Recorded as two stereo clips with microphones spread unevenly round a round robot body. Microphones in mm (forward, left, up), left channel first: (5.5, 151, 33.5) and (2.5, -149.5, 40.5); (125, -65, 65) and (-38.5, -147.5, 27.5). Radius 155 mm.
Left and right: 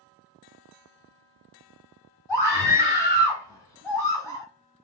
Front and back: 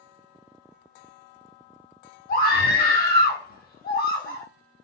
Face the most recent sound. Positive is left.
turn(degrees=10)